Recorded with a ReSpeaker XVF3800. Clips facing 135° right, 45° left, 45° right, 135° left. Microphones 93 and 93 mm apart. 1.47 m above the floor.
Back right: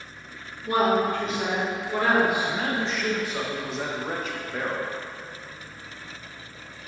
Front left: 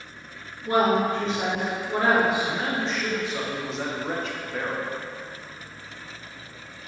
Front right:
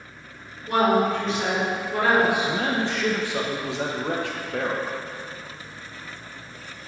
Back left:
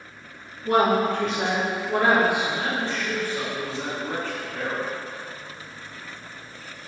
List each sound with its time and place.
0.7 s a woman speaking: 105° left, 2 m
2.4 s a man speaking: 45° right, 1.0 m